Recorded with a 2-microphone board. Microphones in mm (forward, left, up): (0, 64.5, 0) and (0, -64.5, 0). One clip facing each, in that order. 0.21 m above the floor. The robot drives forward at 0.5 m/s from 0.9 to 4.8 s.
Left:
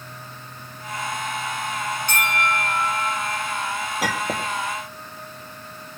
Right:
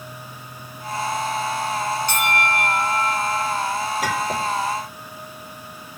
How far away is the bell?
About 4.5 m.